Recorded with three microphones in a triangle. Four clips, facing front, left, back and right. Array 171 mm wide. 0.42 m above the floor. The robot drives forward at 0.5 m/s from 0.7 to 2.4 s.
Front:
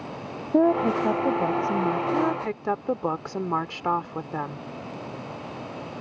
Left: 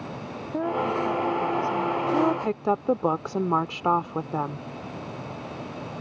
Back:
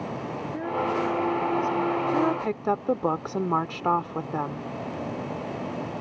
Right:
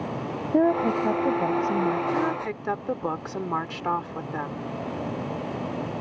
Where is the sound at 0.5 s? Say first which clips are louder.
Right 5 dB, front 8 dB; 40° right.